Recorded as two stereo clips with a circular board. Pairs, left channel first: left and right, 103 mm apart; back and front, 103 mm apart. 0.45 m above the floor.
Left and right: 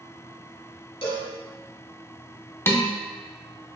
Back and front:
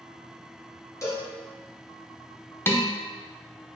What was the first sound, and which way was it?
A cowbell, 125° left.